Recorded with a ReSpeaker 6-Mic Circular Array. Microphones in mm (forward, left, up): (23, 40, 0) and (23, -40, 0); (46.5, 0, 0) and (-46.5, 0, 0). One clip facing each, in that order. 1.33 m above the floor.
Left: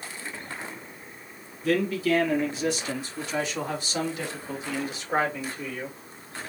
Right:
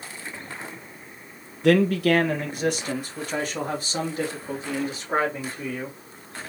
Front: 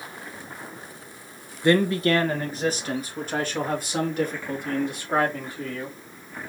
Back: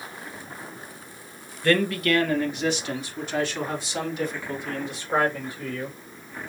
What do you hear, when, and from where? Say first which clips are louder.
1.6 s a man speaking: right 6 dB, front 2 dB; 70° right, 0.8 m; by 6.0 s 35° right, 3.5 m